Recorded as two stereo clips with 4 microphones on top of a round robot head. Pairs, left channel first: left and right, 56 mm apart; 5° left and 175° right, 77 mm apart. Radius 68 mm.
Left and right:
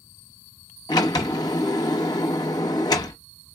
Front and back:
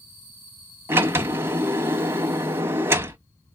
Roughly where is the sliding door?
Behind left.